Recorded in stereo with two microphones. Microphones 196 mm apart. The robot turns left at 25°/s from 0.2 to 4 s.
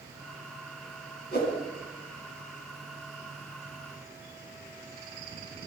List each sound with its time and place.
1.3 s a whoosh: 60° left (ahead or behind), 2.5 m